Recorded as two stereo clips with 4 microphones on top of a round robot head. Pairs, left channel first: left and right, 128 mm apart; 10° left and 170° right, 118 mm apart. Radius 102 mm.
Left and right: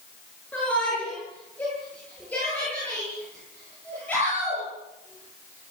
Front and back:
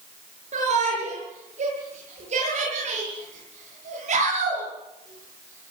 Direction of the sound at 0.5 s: 170° left.